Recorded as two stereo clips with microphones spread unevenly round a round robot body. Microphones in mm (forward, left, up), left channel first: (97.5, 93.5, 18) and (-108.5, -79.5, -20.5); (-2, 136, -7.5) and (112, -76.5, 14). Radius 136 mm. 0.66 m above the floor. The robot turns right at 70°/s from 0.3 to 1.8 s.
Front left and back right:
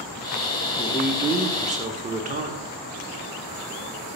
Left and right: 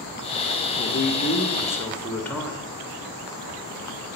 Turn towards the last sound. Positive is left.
turn(degrees=-170)